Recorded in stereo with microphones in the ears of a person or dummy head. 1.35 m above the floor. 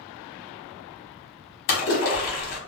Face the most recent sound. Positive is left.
turn(degrees=45)  # may be behind; listen again after turning